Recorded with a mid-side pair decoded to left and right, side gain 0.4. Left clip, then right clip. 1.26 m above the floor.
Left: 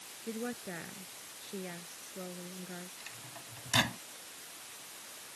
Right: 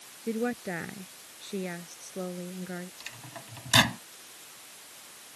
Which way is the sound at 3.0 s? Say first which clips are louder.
Right 4 dB; 55° right.